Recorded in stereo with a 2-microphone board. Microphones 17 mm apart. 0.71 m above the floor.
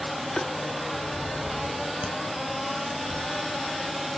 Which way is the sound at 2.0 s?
85° right.